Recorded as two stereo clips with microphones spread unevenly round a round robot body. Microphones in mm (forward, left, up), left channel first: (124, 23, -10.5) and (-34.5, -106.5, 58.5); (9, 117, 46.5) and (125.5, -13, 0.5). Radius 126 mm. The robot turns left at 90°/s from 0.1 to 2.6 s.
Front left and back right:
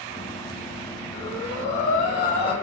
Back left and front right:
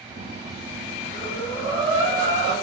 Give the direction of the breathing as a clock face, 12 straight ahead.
9 o'clock.